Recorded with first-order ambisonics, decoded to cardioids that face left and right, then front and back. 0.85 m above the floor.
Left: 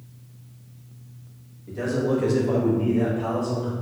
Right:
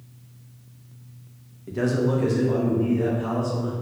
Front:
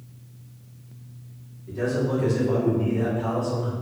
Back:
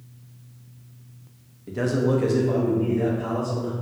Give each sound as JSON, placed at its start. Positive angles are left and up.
{"t": 1.7, "sound": "a man speaking", "azimuth_deg": -145, "distance_m": 0.7}